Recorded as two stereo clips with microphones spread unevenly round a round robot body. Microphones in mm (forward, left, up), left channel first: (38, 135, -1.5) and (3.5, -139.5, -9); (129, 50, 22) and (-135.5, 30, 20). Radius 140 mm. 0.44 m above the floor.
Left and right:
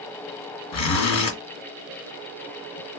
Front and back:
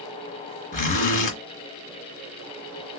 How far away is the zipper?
About 1.5 m.